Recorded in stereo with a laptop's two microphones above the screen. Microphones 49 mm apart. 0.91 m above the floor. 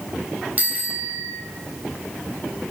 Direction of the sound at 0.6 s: 35° right (ahead or behind).